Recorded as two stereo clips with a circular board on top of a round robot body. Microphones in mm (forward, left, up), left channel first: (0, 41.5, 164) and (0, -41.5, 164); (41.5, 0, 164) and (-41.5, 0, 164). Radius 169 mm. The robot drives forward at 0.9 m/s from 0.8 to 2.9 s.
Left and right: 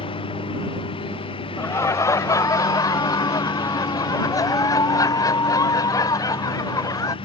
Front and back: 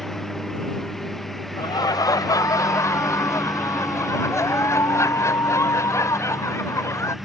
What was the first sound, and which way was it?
A lawn mower, 85° left.